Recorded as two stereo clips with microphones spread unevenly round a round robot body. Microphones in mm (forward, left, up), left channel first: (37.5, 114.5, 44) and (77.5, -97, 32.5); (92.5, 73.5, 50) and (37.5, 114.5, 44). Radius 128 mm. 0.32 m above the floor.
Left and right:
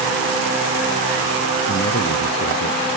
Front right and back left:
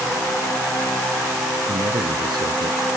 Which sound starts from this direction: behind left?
A man speaking, at 1.7 s.